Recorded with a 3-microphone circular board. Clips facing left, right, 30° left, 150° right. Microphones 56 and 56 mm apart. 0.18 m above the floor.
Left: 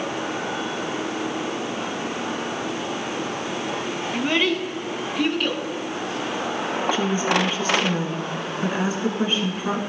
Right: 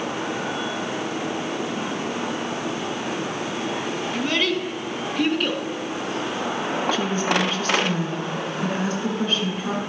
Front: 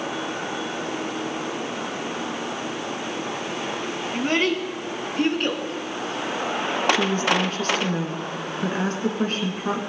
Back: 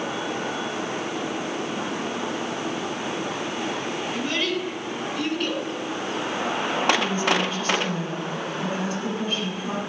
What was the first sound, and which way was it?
A child speaking, 30° left.